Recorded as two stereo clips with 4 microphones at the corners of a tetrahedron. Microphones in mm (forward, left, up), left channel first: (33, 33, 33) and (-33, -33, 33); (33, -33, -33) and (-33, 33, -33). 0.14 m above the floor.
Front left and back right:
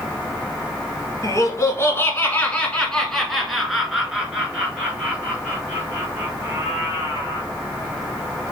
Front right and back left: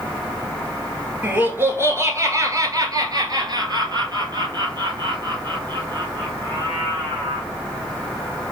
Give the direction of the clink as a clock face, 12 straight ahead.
No clink in this recording.